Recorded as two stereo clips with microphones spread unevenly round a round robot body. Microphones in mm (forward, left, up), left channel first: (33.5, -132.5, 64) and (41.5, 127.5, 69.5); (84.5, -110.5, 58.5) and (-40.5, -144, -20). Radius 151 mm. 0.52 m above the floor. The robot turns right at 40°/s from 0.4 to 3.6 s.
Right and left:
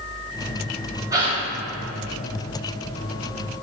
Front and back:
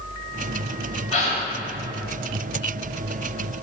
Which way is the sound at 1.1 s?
10° left.